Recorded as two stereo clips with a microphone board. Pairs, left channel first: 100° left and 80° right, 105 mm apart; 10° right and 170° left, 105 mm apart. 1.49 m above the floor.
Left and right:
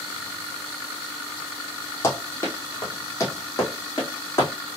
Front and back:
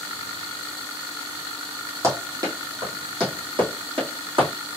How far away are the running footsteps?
About 1.8 m.